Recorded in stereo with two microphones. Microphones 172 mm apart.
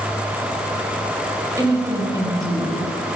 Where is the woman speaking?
20° right (ahead or behind), 6.5 m.